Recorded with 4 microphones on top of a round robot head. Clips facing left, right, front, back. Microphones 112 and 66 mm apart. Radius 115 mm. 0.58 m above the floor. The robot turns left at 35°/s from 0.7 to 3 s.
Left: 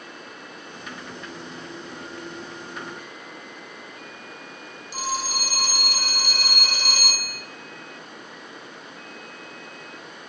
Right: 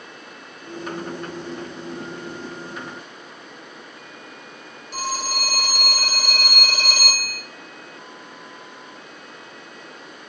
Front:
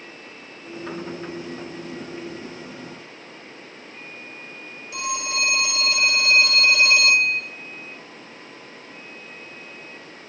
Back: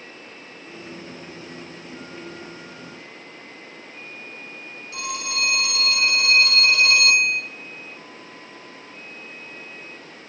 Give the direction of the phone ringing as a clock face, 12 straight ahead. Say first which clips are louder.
Right 2 dB, front 2 dB; 2 o'clock.